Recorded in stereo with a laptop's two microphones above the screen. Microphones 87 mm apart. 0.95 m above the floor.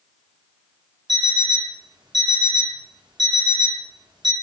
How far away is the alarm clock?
About 1.1 m.